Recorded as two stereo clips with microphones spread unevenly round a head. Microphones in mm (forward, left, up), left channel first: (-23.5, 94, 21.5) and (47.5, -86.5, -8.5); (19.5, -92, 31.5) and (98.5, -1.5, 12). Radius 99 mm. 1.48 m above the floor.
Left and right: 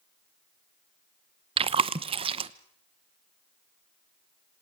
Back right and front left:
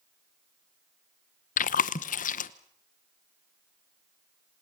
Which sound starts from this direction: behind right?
Chewing, at 1.6 s.